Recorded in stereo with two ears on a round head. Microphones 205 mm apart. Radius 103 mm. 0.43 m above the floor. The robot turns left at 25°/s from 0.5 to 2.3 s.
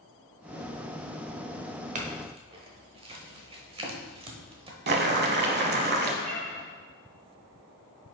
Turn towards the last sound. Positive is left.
turn(degrees=-80)